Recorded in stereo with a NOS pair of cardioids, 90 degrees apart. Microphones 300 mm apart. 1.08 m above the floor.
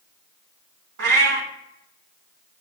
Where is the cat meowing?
55° right, 1.2 m.